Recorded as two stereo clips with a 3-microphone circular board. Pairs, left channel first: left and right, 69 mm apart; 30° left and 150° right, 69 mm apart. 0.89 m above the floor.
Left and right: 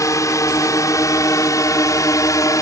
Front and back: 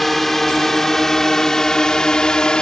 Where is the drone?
115° left; by 2.6 s 105° left.